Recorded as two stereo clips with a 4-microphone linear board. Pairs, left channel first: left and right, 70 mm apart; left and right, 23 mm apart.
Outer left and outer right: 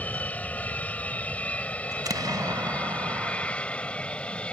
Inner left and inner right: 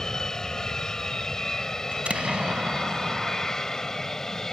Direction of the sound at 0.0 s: 20° left (ahead or behind).